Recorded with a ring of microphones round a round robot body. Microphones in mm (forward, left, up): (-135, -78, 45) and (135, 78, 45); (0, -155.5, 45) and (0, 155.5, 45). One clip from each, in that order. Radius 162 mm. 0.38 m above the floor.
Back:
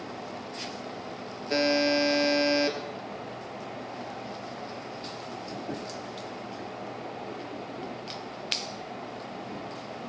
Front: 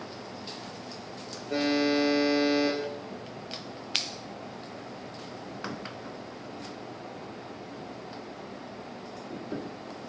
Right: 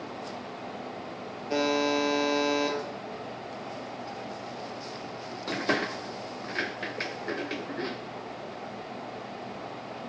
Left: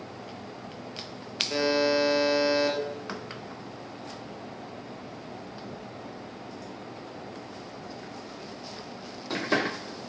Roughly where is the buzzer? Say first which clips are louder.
Back 2 dB, left 1 dB; behind.